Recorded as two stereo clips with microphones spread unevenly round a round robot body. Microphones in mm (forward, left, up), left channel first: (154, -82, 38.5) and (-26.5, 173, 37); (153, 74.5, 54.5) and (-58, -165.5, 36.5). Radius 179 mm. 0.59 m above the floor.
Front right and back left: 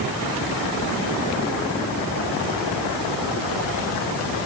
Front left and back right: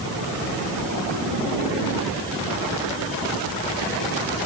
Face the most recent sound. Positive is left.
No sound to turn to.